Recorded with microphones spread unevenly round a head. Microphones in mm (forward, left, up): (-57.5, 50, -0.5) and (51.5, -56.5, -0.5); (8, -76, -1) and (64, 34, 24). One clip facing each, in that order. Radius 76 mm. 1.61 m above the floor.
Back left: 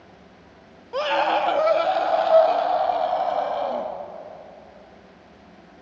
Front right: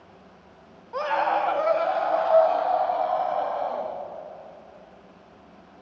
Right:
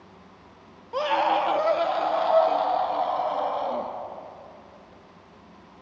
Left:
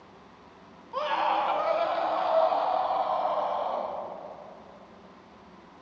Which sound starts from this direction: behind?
A scream, at 0.9 s.